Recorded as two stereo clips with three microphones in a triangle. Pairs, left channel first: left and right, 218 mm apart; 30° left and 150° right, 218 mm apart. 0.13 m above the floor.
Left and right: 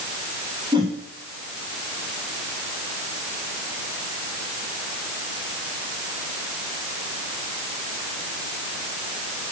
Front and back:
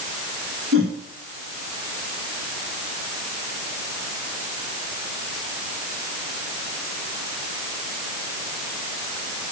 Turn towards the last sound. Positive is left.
turn(degrees=-160)